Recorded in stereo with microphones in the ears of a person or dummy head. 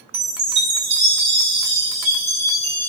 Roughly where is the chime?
Right.